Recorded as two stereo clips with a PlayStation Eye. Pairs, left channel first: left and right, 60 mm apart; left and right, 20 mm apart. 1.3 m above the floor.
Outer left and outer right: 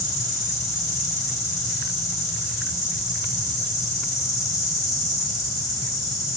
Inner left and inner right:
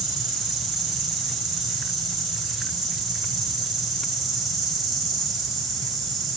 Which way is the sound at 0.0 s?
5° right (ahead or behind).